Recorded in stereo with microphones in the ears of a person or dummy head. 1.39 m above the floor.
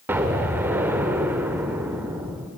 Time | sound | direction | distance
0.1 | an explosion | 15° right (ahead or behind) | 1.3 m